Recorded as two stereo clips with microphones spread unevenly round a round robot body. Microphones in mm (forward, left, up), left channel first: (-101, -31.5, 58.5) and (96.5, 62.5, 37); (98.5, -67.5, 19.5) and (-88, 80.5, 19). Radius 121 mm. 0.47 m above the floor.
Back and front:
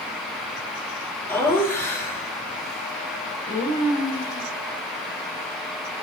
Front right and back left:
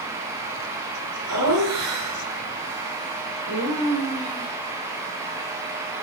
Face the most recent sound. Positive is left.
turn(degrees=135)